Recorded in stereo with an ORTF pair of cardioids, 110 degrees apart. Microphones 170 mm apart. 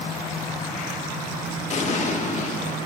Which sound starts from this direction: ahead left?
An explosion, at 1.7 s.